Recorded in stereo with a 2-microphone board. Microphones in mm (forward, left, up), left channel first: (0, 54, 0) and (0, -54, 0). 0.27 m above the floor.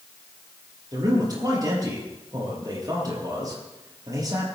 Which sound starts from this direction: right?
A man speaking, at 0.9 s.